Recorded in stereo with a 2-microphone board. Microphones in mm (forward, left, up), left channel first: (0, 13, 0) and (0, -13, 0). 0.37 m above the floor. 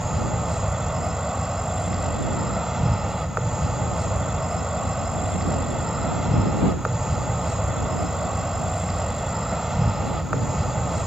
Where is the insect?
20° right (ahead or behind).